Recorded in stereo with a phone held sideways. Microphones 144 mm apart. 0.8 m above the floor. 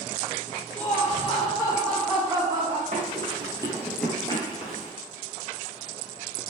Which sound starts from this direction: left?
Laughter, at 0.8 s.